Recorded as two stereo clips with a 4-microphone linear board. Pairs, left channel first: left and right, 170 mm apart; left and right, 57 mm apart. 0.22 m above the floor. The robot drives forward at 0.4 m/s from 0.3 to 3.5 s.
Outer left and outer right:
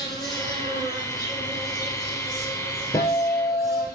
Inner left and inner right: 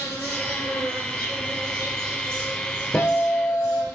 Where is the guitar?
20° left (ahead or behind), 1.6 m; by 3.8 s 15° left (ahead or behind), 1.8 m.